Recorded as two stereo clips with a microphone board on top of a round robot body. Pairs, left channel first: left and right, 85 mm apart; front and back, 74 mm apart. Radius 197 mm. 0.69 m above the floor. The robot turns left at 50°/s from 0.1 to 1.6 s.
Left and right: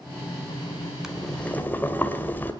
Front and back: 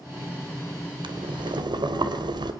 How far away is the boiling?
About 2.0 m.